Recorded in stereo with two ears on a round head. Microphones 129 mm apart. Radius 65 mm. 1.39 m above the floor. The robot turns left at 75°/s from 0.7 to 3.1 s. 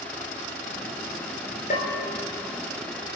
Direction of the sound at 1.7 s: 50° left (ahead or behind).